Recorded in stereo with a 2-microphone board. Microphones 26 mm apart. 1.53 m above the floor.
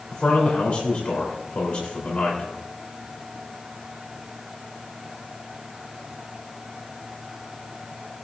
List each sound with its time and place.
0.1 s a man speaking: 55° left (ahead or behind), 4 m